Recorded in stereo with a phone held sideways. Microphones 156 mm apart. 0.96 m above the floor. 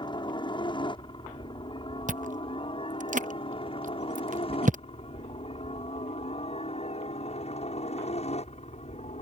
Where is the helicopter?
30° left (ahead or behind); by 9.2 s 45° left (ahead or behind).